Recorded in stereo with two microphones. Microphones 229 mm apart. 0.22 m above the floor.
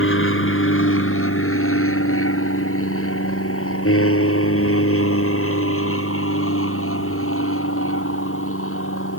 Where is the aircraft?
60° left (ahead or behind); by 9.2 s 65° left (ahead or behind).